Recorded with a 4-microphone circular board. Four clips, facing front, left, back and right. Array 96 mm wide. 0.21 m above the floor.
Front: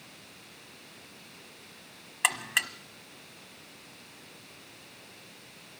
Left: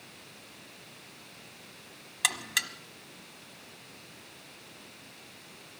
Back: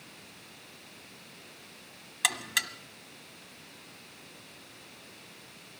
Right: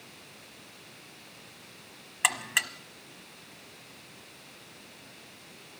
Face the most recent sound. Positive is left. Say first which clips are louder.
# right 4 dB, front 2 dB
turn(degrees=-40)